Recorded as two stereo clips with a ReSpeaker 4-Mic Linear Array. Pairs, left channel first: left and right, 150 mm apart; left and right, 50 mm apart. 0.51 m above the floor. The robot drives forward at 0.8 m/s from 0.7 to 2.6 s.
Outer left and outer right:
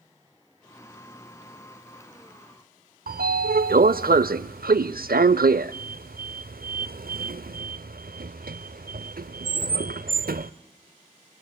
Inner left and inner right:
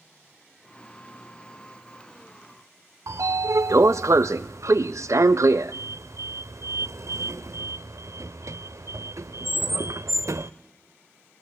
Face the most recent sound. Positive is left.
turn(degrees=-85)